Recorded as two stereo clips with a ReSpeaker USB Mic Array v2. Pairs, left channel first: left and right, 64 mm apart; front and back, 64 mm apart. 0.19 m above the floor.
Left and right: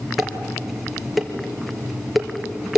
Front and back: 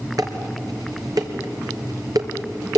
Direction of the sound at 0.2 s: Straight behind.